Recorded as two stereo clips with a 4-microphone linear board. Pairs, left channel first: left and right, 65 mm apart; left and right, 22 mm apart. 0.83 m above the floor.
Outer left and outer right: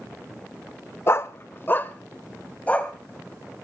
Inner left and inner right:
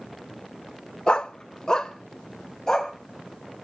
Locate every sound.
1.1 s a dog barking: 40° left (ahead or behind), 0.5 m; by 2.9 s 20° left (ahead or behind), 1.5 m